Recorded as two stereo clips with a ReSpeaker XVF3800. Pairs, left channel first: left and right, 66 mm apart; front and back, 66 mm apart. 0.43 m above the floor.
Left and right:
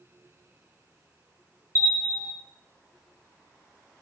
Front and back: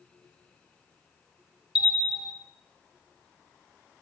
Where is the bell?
105° right, 0.9 m.